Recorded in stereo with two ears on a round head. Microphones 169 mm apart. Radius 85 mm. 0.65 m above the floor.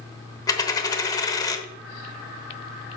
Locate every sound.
0.5 s a dropped coin: 20° left (ahead or behind), 0.8 m